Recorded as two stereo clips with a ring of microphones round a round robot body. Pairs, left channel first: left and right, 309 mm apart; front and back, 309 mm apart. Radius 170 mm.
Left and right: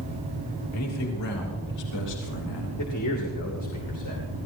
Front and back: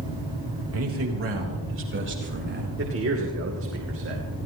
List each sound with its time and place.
0.7 s a man speaking: 135° left, 3 m; by 2.7 s 125° left, 4 m
2.8 s a man speaking: 135° left, 2.5 m